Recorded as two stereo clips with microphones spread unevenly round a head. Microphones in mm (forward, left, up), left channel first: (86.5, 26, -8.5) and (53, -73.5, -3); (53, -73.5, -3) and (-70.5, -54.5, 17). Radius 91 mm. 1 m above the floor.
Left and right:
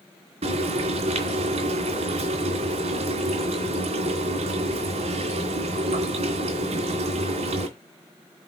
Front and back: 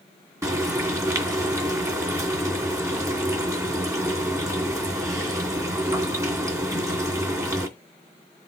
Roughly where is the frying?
Behind right.